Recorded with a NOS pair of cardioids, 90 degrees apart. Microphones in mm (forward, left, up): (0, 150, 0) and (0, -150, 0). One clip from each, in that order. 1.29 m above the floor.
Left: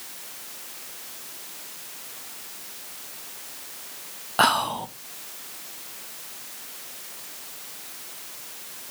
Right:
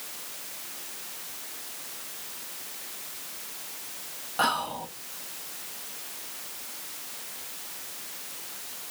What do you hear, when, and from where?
4.4 s whispering: 40° left, 0.6 m